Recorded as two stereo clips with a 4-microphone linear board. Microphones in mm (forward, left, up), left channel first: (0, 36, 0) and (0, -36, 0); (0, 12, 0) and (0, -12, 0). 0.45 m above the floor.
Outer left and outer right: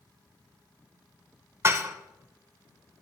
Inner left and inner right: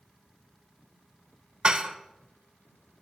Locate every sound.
1.6 s dishes clattering: 40° right (ahead or behind), 1.0 m